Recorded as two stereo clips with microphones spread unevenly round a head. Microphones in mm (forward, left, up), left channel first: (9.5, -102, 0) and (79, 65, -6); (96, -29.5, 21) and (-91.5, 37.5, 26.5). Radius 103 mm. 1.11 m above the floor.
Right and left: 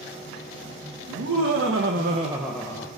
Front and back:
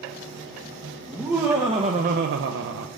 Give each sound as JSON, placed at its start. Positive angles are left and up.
{"t": 1.1, "sound": "laughter", "azimuth_deg": 80, "distance_m": 1.5}